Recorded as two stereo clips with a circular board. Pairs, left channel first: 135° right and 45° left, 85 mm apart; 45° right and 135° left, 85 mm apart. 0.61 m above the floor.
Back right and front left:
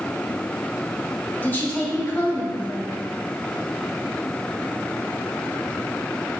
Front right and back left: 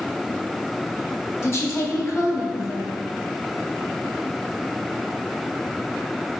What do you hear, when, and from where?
1.4 s a woman speaking: 80° right, 0.8 m